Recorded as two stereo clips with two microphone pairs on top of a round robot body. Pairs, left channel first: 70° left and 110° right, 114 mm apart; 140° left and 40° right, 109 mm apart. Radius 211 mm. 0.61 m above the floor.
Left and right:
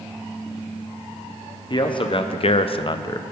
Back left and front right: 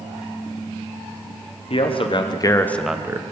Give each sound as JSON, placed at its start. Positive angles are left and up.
{"t": 1.7, "sound": "a man speaking", "azimuth_deg": 115, "distance_m": 1.3}